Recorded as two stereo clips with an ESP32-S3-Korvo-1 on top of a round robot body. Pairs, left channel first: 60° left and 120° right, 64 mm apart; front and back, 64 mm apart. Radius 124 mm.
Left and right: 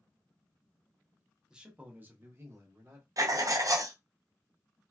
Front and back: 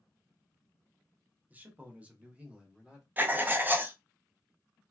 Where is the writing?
125° right, 0.7 m.